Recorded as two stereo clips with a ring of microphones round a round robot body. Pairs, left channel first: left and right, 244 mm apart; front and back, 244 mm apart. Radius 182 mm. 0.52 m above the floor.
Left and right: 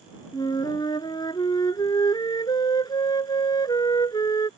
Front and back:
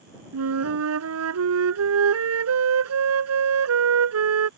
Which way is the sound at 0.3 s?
170° left.